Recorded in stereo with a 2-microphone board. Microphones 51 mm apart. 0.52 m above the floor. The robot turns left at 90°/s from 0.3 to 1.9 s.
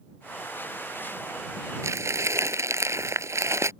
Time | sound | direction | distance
1.8 | crumpling | 80° right | ?